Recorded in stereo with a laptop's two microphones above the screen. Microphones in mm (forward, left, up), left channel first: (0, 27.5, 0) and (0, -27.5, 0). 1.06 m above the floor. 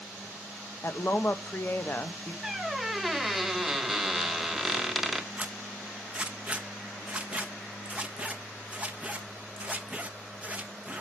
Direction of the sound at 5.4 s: 20° right (ahead or behind).